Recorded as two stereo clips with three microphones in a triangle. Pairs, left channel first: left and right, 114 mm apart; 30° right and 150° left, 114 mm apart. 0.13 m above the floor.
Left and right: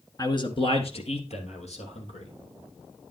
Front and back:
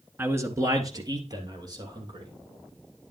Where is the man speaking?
100° left, 1.2 m.